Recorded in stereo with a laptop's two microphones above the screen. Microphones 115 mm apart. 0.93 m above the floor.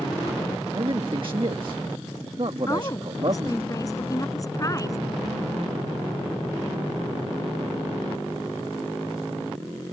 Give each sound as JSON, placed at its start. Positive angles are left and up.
{"t": 0.7, "sound": "a man speaking", "side_deg": -45}
{"t": 2.7, "sound": "a woman speaking", "side_deg": 30}